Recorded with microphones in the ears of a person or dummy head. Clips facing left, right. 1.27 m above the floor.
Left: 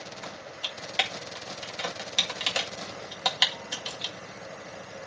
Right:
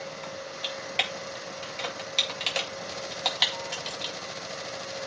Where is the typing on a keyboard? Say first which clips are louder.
Right 4 dB; 5° left (ahead or behind), 2 m.